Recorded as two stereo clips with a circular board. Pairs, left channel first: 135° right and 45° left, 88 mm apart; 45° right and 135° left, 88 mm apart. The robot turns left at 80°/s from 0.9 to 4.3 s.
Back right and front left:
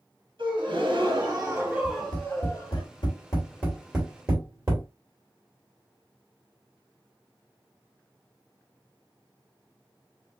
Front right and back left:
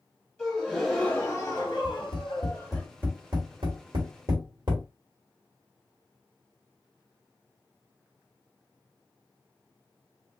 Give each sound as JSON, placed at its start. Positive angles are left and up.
{"t": 0.4, "sound": "a gasp", "azimuth_deg": 35, "distance_m": 1.7}
{"t": 1.8, "sound": "tapping", "azimuth_deg": -65, "distance_m": 2.5}